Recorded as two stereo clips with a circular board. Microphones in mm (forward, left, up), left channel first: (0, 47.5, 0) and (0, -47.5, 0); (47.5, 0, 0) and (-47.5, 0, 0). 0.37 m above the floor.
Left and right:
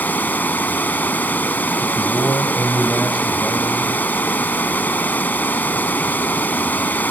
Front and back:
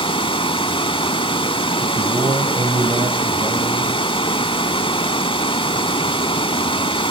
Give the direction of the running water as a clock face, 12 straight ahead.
11 o'clock.